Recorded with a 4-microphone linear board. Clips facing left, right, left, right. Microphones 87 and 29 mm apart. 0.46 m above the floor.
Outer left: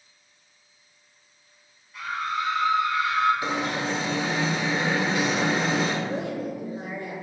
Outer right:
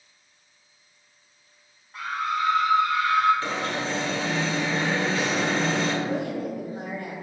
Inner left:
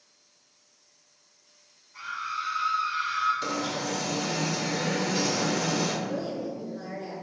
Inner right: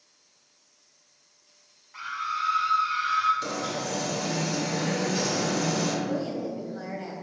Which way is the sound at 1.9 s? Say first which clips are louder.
Outer right 2 dB, inner right 2 dB; 45° right (ahead or behind).